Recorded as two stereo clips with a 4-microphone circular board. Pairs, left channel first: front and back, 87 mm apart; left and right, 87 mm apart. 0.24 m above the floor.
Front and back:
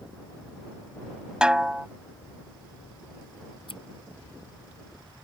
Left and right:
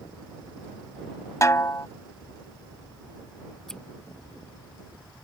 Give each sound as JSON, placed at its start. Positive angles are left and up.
{"t": 1.4, "sound": "a snare drum", "azimuth_deg": 105}
{"t": 3.7, "sound": "scissors", "azimuth_deg": 5}